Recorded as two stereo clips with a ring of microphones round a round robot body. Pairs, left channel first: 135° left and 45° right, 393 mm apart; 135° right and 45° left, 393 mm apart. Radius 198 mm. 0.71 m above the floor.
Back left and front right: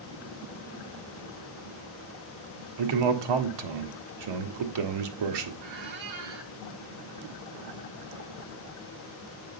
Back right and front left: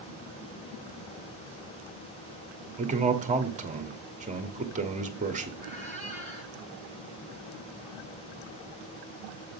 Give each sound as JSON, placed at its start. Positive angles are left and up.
{"t": 2.8, "sound": "a man speaking", "azimuth_deg": -25, "distance_m": 1.4}
{"t": 5.6, "sound": "a squeak", "azimuth_deg": -60, "distance_m": 2.0}